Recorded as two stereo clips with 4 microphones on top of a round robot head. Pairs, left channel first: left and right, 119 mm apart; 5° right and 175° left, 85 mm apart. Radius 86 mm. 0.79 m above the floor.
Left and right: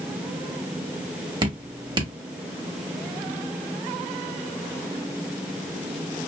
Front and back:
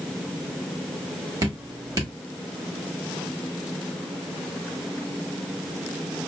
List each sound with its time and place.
1.4 s dripping: 135° right, 1.7 m